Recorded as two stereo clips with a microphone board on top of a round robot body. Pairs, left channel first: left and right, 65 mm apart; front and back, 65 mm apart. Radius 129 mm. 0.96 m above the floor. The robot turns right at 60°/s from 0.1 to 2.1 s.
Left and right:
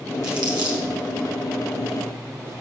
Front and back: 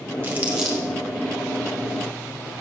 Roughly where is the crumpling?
Behind right.